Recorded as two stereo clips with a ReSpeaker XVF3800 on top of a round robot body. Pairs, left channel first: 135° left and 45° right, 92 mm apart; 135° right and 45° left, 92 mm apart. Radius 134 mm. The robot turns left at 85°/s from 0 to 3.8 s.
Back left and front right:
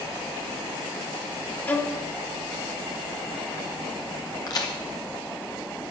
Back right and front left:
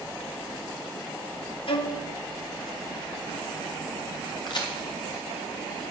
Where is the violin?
155° right, 1.2 m; by 2.0 s straight behind, 1.2 m.